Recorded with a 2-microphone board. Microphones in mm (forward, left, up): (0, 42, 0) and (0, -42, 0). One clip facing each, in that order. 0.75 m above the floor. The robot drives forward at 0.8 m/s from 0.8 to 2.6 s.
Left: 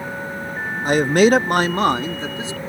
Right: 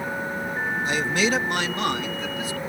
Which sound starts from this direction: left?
A man speaking, at 0.8 s.